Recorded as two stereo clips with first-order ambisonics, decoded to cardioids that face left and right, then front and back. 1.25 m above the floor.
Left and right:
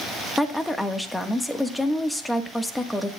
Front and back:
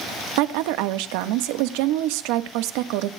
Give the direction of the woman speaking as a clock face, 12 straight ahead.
6 o'clock.